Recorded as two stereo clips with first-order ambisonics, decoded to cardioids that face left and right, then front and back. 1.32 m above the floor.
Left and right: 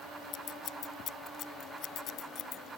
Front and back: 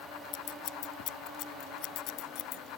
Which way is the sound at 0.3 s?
35° left.